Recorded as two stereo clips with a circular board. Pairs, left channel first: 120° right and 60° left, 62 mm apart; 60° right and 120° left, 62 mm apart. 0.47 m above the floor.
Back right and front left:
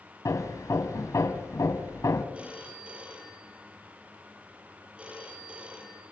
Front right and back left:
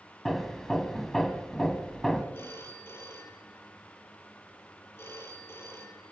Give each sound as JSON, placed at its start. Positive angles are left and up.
{"t": 0.2, "sound": "hammering", "azimuth_deg": -145, "distance_m": 2.0}
{"t": 2.3, "sound": "a phone ringing", "azimuth_deg": -10, "distance_m": 7.5}